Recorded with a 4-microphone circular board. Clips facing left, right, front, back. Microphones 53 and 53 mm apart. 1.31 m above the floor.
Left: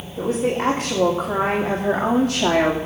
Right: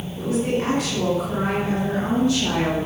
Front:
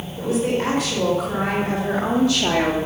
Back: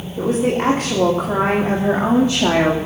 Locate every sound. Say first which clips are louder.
0.2 s a woman speaking: left 2 dB, back 3 dB; 135° left, 3 m; by 2.8 s 115° left, 2.0 m